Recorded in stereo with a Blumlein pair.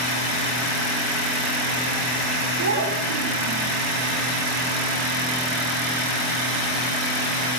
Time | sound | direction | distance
2.6 | a child speaking | 70° right | 2 m